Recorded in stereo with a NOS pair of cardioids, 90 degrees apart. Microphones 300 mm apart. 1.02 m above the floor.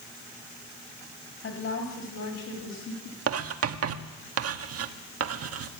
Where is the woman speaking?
50° left, 5.5 m; by 3.2 s 65° left, 6.5 m.